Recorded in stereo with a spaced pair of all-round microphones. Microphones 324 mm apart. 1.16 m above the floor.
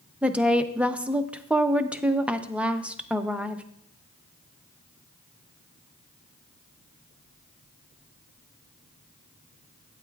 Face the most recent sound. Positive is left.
turn(degrees=-5)  # may be behind; listen again after turning